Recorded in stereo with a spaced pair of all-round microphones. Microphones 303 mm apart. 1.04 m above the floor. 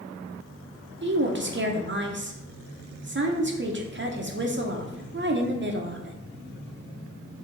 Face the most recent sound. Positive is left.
turn(degrees=-40)  # may be behind; listen again after turning